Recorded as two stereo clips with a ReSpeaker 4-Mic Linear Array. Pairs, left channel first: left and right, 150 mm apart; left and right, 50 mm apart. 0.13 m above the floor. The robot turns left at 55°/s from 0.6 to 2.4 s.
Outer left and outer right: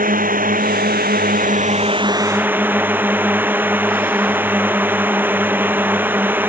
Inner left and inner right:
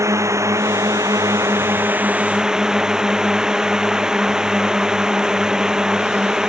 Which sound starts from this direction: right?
A drone, at 0.0 s.